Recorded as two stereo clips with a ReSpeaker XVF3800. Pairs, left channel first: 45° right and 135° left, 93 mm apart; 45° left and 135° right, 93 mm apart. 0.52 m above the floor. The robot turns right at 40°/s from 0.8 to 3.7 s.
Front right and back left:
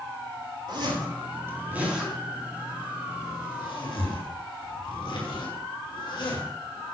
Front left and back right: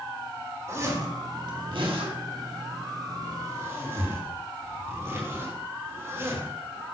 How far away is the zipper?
About 5.5 m.